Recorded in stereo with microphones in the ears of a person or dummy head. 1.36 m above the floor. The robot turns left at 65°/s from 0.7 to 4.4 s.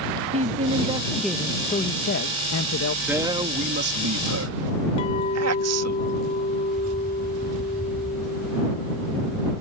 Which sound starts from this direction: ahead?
A man speaking, at 3.1 s.